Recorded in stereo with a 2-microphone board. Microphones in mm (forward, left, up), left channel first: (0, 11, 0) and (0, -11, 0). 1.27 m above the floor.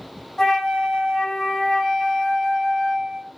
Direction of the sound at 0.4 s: 30° left (ahead or behind).